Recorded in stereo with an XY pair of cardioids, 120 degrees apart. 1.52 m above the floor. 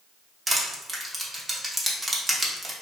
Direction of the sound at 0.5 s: 20° right.